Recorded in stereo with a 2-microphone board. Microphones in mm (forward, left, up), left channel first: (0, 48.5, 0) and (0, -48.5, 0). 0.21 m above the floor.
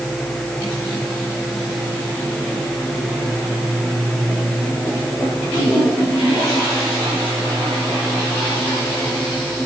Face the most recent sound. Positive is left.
No sound to turn to.